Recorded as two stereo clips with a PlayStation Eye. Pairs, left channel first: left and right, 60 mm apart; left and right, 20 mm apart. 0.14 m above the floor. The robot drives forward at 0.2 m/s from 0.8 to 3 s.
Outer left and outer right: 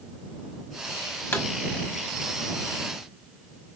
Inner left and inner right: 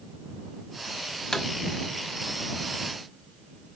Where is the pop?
35° left (ahead or behind), 1.1 m.